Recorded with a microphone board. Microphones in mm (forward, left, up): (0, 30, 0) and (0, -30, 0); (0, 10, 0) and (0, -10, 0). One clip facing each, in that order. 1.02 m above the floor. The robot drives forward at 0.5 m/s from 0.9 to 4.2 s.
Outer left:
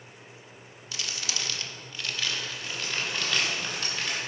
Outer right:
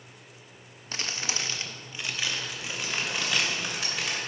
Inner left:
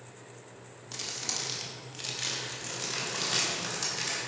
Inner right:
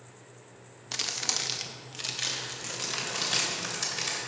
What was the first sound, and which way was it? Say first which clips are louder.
Crumpling: outer right 2 dB, inner right 5 dB; 40° right (ahead or behind).